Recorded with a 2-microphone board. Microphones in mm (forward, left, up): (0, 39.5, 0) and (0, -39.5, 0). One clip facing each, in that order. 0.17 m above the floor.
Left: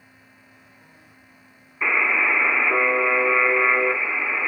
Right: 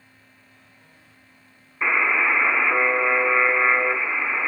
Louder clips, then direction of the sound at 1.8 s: Even; 10° right (ahead or behind).